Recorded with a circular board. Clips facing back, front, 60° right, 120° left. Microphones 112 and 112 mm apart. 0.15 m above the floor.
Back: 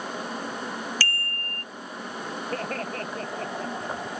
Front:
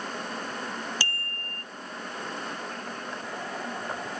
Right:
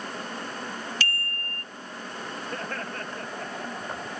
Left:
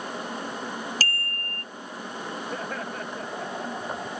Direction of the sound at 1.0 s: 70° left.